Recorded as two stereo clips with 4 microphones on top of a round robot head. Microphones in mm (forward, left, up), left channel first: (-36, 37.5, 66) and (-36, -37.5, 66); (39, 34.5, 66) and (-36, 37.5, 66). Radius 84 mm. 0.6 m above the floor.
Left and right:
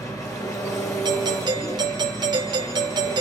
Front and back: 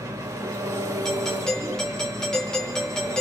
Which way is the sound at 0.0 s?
130° left.